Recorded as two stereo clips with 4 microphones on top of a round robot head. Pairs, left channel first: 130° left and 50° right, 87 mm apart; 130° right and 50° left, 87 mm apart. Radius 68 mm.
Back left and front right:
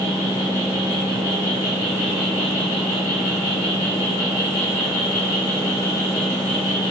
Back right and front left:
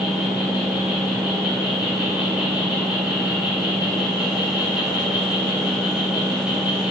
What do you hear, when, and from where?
0.0 s an insect: 130° left, 2.5 m